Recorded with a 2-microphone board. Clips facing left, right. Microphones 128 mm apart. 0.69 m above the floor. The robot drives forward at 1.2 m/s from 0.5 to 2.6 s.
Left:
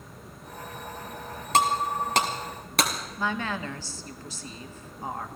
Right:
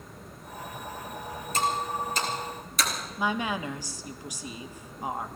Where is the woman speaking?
15° right (ahead or behind), 1.1 m.